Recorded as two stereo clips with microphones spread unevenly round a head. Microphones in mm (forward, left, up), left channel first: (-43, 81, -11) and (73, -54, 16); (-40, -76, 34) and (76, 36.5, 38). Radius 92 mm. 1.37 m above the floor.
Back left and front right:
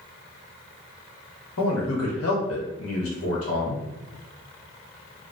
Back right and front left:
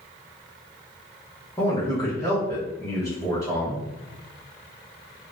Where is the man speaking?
150° left, 1.2 m.